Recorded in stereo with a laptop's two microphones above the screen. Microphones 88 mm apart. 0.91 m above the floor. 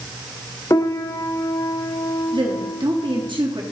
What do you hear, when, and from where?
0.7 s a piano: 35° left (ahead or behind), 0.5 m
2.3 s a woman speaking: 75° right (ahead or behind), 1.2 m